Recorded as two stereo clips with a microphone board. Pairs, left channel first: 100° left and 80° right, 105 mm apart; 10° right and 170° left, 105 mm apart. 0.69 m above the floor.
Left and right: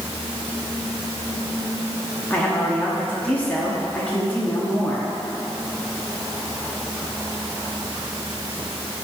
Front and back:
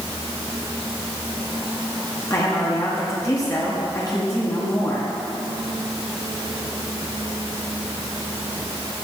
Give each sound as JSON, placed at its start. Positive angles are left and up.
{"t": 2.3, "sound": "a woman speaking", "azimuth_deg": 30, "distance_m": 1.3}